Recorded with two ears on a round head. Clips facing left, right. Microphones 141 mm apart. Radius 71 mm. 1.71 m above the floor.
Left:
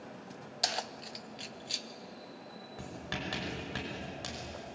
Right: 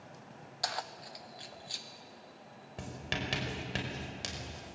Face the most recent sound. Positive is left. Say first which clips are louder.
# right 1 dB
turn(degrees=-25)  # may be behind; listen again after turning